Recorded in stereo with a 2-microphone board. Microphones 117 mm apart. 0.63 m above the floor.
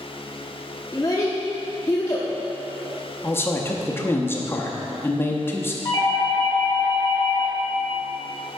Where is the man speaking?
20° left (ahead or behind), 0.6 m.